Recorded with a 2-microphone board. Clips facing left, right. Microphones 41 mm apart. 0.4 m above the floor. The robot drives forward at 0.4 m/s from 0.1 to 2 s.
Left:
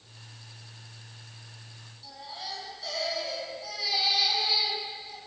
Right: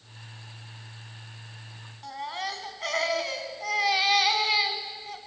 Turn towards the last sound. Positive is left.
turn(degrees=-55)  # may be behind; listen again after turning